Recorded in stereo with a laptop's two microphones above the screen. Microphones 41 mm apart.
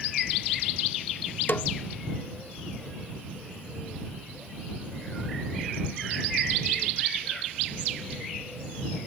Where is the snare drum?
60° left (ahead or behind).